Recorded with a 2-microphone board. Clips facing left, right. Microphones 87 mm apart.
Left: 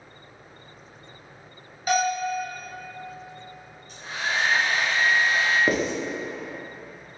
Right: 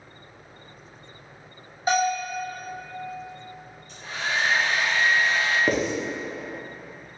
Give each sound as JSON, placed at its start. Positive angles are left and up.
{"t": 1.9, "sound": "a bell", "side_deg": -30, "distance_m": 1.2}
{"t": 3.9, "sound": "a hair dryer", "side_deg": 40, "distance_m": 1.7}
{"t": 5.7, "sound": "writing", "side_deg": 5, "distance_m": 0.6}